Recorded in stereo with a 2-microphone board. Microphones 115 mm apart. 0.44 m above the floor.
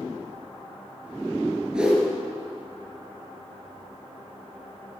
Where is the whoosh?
10° right (ahead or behind), 3.5 m.